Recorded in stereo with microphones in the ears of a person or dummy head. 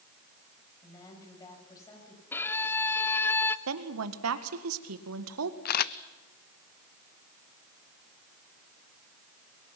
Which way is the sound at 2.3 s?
10° left (ahead or behind).